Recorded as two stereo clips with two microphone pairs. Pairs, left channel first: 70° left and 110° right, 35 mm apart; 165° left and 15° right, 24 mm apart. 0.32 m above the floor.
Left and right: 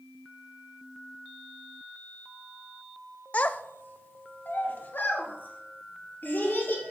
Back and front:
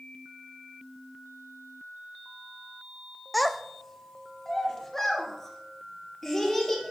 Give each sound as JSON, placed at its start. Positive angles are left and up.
{"t": 3.3, "sound": "a child speaking", "azimuth_deg": 70, "distance_m": 0.5}